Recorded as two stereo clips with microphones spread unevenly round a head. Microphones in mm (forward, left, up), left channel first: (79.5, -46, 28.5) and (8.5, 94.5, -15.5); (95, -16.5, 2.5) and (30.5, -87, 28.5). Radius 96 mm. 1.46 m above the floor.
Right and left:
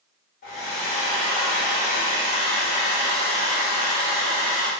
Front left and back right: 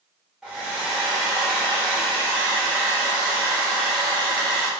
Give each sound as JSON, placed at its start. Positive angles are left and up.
{"t": 0.4, "sound": "a hair dryer", "azimuth_deg": -60, "distance_m": 1.7}